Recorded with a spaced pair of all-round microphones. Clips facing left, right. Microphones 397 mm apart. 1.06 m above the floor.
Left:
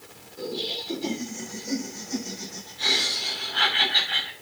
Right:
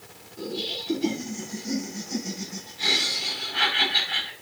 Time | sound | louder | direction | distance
0.4 | laughter | even | 40° right (ahead or behind) | 8 m